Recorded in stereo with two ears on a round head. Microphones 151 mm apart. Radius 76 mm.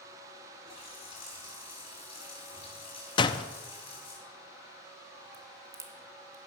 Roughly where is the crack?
Centre.